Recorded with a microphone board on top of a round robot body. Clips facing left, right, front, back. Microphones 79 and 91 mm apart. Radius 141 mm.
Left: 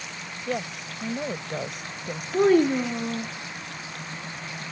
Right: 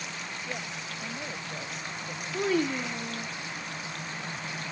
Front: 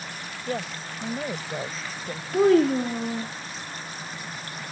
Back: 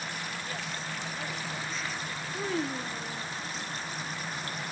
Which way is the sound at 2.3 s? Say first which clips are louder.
Left 9 dB, front 15 dB; 40° left.